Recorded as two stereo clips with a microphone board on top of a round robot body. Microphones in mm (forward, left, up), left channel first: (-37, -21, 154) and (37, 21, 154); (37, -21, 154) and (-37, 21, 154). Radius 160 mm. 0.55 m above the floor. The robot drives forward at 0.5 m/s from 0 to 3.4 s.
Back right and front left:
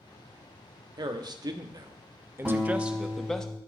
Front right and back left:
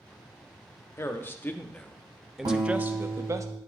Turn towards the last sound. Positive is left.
turn(degrees=115)